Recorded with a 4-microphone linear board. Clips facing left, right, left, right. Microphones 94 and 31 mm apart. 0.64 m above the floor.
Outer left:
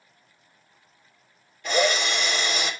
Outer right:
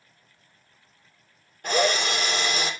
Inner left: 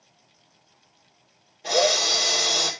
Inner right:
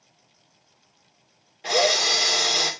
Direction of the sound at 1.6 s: 50° right (ahead or behind).